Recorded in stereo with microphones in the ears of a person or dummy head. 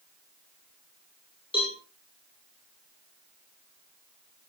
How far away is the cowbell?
About 6 m.